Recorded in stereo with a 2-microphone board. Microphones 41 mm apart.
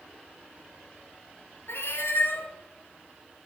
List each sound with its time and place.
1.7 s a cat meowing: 80° left, 1.7 m